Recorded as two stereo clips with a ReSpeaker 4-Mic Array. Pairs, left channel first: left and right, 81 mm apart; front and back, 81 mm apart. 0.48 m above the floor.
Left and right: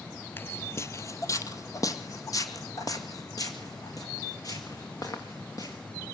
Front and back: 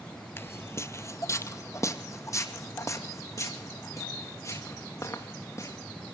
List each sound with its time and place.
0.4 s footsteps: 40° left, 0.5 m; by 5.8 s 50° left, 3.5 m